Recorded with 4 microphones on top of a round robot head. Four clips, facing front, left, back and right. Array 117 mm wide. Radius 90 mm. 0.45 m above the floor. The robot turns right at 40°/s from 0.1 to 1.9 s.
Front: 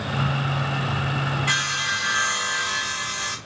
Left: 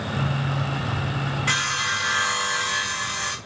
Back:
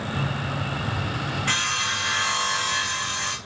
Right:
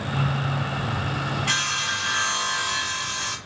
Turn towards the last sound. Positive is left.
turn(degrees=105)